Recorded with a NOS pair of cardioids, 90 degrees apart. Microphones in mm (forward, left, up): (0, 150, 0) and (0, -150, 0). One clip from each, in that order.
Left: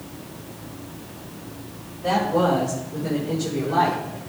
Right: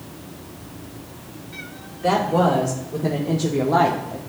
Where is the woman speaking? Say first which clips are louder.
Right 2 dB; 55° right, 1.9 m; by 4.2 s 45° right, 0.9 m.